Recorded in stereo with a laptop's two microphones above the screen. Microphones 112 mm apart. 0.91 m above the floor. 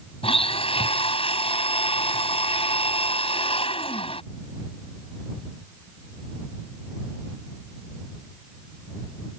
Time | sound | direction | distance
0.2 | a blender | 55° left (ahead or behind) | ?